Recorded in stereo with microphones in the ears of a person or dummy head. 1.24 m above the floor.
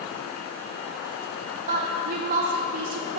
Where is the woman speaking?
45° right (ahead or behind), 0.6 m.